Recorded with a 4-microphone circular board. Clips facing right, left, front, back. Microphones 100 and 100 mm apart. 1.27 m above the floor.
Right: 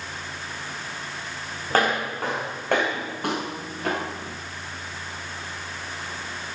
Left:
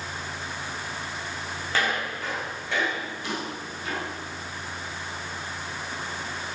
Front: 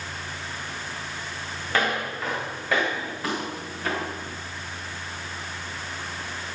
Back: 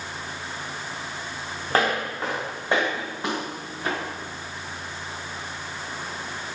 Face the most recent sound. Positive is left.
turn(degrees=-105)